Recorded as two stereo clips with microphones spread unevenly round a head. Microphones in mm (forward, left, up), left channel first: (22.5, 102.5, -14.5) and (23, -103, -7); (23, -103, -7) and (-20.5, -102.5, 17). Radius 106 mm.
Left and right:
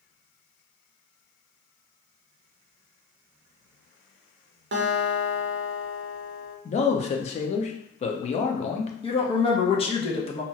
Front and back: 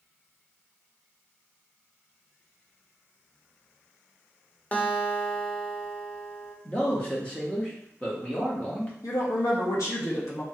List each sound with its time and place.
4.7 s a guitar: 80° right, 0.7 m
6.7 s a man speaking: 35° left, 0.5 m
9.0 s a woman speaking: 25° left, 0.8 m